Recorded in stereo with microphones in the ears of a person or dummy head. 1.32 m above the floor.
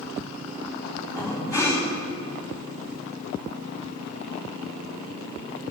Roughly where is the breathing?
Centre.